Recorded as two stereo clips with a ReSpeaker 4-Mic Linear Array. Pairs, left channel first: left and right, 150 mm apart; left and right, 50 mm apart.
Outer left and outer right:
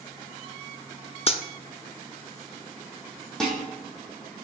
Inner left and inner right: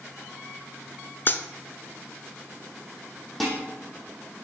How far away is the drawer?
No drawer in this recording.